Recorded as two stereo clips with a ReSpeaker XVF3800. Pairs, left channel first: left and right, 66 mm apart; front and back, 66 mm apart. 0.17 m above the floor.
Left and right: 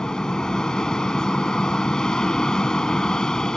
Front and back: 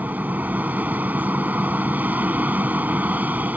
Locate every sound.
0.0 s an aircraft: 155° left